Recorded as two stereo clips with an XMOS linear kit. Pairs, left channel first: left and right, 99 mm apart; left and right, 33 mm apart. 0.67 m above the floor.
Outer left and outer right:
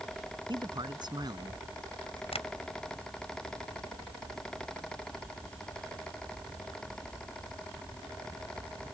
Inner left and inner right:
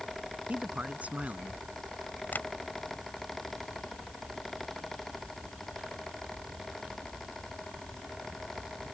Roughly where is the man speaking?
Right.